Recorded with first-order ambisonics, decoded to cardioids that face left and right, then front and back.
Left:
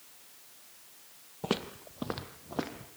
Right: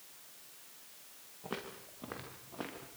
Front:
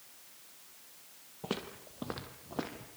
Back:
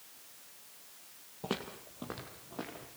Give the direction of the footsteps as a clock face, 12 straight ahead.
9 o'clock.